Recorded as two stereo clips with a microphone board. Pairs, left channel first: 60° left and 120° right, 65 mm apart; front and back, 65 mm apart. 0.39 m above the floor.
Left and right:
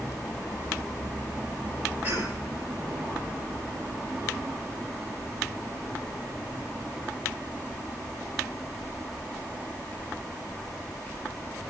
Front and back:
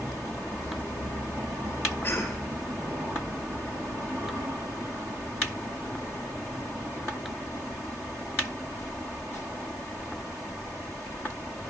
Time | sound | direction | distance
2.0 | a cough | 60° right | 9.5 m